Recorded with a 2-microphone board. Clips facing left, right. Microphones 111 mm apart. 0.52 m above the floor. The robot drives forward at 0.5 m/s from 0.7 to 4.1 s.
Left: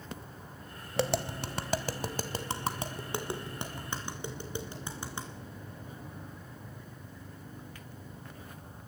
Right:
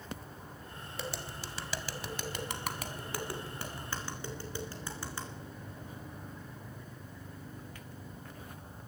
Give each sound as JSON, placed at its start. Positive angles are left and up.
{"t": 1.0, "sound": "tapping", "side_deg": 75, "distance_m": 0.6}